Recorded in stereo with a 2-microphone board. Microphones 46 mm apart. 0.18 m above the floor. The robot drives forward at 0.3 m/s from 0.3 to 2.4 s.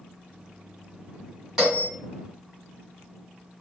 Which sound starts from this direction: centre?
A bell, at 1.6 s.